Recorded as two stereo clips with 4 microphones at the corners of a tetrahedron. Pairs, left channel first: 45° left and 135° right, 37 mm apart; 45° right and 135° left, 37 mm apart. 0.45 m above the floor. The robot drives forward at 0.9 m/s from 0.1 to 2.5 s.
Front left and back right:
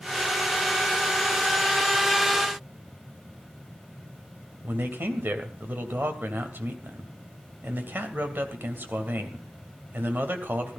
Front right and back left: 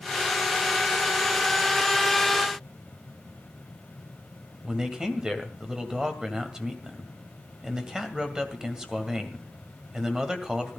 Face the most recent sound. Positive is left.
turn(degrees=-155)